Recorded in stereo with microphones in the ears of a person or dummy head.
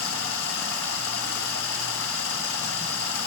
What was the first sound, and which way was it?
Running water, 75° left (ahead or behind).